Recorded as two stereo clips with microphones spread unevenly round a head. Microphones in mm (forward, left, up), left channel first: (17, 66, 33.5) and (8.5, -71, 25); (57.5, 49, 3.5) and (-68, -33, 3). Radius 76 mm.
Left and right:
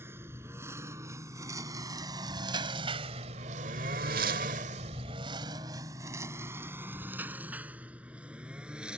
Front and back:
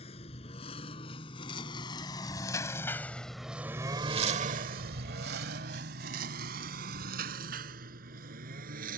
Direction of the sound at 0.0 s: 20° right.